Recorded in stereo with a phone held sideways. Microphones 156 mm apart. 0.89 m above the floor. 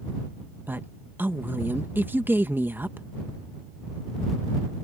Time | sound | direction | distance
0.7 | a woman speaking | 15° right (ahead or behind) | ?